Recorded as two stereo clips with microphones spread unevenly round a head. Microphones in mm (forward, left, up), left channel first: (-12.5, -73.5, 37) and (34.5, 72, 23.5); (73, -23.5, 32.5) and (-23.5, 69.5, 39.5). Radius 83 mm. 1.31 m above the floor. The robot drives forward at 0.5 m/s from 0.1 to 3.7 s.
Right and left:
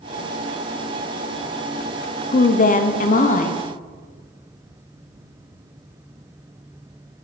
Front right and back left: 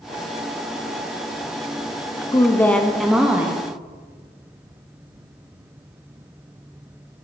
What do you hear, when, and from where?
2.3 s a woman speaking: 95° right, 0.6 m; by 3.6 s 150° right, 0.9 m